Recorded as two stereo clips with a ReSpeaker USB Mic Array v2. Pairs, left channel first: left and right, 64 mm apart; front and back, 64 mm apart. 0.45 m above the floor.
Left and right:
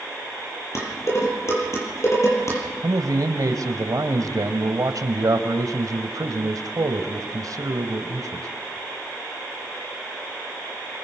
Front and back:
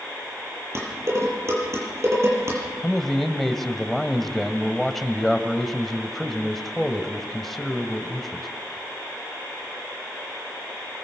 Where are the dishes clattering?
135° left, 7.5 m.